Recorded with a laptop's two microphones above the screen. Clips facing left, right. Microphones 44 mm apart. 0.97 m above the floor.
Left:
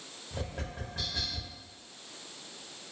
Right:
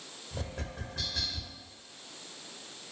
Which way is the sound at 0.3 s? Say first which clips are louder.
Left 1 dB; 15° left (ahead or behind).